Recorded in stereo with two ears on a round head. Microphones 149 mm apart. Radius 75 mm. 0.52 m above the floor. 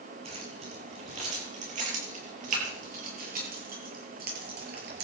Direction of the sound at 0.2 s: 40° right (ahead or behind).